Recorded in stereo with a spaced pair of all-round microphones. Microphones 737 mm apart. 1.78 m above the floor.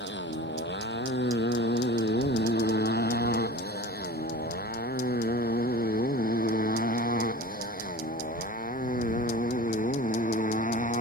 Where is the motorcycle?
15° left (ahead or behind); by 11.0 s 10° left (ahead or behind).